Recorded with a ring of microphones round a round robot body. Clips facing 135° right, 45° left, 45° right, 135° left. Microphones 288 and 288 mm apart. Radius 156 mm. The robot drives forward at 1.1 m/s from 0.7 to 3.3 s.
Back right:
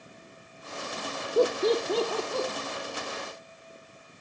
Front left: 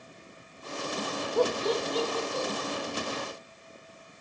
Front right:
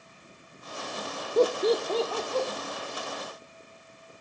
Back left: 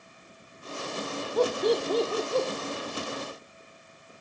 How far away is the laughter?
About 0.7 m.